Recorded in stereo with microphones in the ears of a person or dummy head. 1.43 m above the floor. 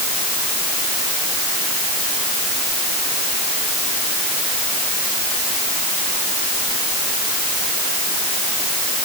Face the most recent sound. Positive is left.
No sound to turn to.